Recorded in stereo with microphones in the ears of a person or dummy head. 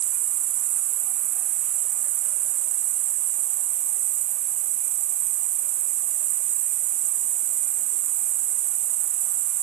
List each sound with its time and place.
0.0 s an insect: 45° right (ahead or behind)